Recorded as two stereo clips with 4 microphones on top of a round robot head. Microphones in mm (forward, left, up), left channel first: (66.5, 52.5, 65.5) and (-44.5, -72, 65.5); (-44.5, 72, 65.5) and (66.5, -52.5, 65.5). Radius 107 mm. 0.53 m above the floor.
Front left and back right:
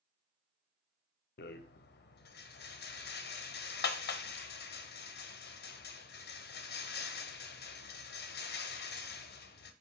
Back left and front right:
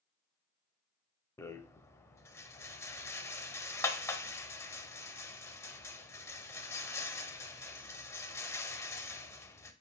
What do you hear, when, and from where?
1.4 s a rattle: 60° left, 0.5 m